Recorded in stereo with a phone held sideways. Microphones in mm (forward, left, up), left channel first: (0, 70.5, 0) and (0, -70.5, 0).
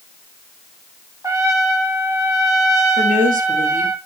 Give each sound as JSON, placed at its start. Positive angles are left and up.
{"t": 1.2, "sound": "a trumpet", "side_deg": -20, "distance_m": 1.6}
{"t": 3.0, "sound": "a woman speaking", "side_deg": -70, "distance_m": 3.0}